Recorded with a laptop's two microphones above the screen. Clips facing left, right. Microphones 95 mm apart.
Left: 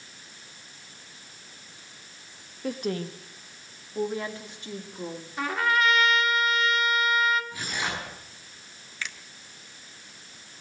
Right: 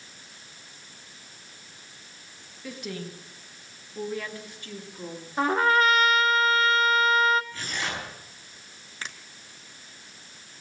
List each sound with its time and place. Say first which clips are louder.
2.6 s a woman speaking: left 6 dB; 50° left (ahead or behind), 1.6 m; by 5.3 s 15° left (ahead or behind), 2.5 m
5.4 s a trumpet: right 4 dB; 35° right (ahead or behind), 1.4 m
7.5 s tearing paper: left 1 dB; 15° left (ahead or behind), 6.5 m
9.0 s a finger snap: left 1 dB; 35° right (ahead or behind), 1.2 m